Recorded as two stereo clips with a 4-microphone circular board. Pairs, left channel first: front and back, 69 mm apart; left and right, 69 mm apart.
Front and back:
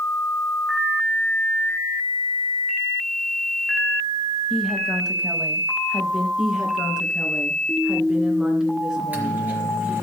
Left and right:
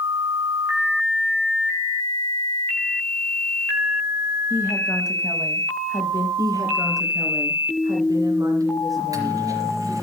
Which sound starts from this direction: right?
A woman speaking, at 6.4 s.